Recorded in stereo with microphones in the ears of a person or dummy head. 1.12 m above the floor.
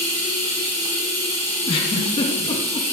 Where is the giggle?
30° left (ahead or behind), 0.6 m.